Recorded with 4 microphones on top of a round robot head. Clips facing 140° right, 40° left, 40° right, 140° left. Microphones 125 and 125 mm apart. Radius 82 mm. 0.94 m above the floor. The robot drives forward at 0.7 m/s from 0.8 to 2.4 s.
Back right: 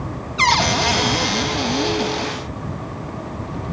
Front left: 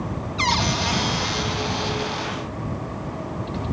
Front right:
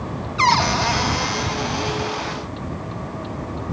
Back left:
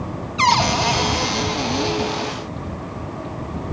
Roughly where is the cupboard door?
Behind right.